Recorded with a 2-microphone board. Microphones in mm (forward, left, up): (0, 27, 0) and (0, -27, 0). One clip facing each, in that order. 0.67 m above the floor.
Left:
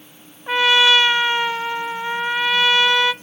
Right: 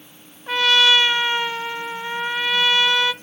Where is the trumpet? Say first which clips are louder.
Left 2 dB; 15° left (ahead or behind), 0.7 m.